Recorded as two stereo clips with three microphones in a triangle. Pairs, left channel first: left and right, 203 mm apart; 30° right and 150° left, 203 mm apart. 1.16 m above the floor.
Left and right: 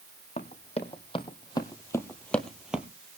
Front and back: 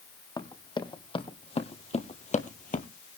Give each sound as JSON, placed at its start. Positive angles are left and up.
{"t": 0.4, "sound": "running footsteps", "azimuth_deg": 35, "distance_m": 2.5}